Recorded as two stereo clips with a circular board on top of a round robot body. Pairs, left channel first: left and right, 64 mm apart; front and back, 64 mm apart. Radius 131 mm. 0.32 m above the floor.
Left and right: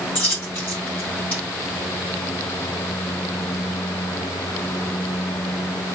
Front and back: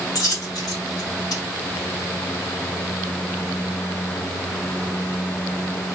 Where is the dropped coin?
25° left, 3.5 m.